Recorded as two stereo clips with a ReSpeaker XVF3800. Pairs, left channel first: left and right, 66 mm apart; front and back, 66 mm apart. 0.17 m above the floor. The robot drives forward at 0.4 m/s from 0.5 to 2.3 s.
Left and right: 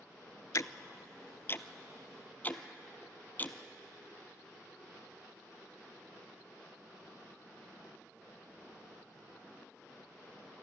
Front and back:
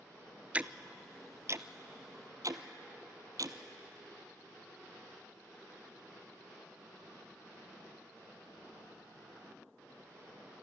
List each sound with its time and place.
0.5 s ticking: 115° left, 0.5 m; by 3.6 s 150° left, 1.0 m